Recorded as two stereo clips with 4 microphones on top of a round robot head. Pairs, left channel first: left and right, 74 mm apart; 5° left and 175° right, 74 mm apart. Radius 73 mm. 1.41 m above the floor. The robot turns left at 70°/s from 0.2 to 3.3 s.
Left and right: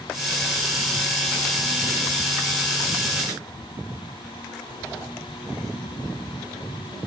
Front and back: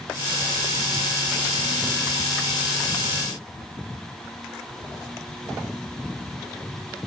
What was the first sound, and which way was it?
Only background noise.